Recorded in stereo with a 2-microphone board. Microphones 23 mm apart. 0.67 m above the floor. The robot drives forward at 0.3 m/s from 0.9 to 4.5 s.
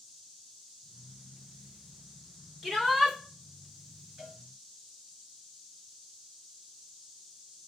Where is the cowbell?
20° right (ahead or behind), 2.5 m.